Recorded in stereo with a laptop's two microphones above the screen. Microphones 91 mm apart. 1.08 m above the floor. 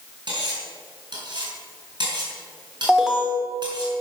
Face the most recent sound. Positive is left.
turn(degrees=-5)  # may be behind; listen again after turning